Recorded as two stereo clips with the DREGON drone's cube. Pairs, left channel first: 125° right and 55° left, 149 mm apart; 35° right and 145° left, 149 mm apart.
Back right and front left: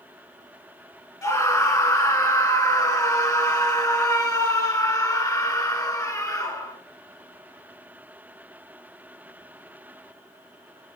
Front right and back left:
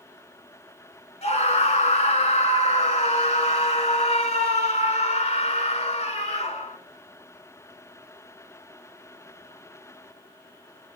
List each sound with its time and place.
1.2 s a scream: 65° right, 1.6 m